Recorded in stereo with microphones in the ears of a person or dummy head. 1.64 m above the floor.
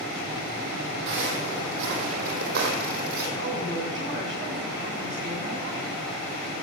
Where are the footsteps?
60° right (ahead or behind), 4.5 m; by 3.3 s 50° right (ahead or behind), 5 m.